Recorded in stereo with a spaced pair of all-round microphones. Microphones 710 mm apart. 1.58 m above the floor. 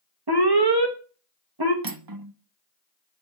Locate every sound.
0.3 s an alarm: 35° right (ahead or behind), 1.5 m
1.8 s cutlery clinking: 30° right (ahead or behind), 0.7 m